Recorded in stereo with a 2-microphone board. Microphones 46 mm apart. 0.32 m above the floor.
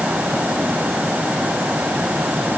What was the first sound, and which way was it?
Only background noise.